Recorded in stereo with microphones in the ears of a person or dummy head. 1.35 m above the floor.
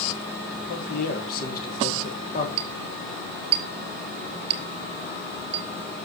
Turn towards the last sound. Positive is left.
turn(degrees=-35)  # may be behind; listen again after turning